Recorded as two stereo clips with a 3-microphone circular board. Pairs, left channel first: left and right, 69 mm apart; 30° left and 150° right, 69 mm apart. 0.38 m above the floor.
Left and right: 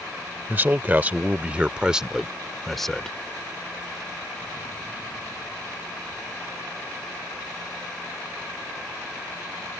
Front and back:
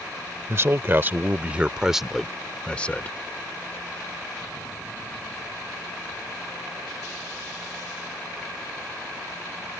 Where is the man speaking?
135° right; by 3.2 s 20° left.